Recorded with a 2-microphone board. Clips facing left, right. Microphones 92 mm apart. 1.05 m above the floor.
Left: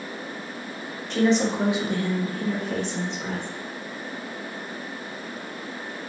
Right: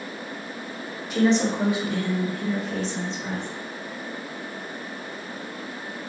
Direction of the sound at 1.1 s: 5° right (ahead or behind).